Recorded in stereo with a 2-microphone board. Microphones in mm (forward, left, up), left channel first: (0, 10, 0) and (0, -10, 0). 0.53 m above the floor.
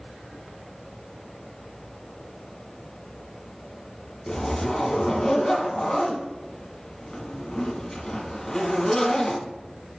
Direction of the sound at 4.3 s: 25° left (ahead or behind).